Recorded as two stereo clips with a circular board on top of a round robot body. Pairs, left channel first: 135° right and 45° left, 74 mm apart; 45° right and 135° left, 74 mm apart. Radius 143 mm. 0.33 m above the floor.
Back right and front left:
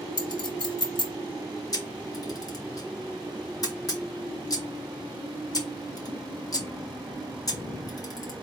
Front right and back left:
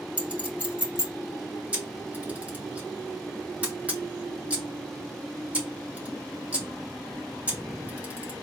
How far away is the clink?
About 2.5 m.